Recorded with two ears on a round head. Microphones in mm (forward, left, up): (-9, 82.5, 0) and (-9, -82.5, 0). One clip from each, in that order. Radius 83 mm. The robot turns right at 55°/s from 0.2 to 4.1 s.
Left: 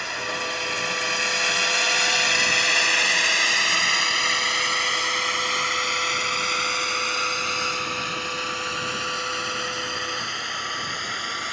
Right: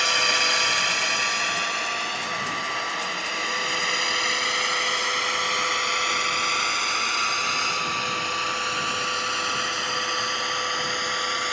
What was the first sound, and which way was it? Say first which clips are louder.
A drone: right 7 dB; 65° right (ahead or behind).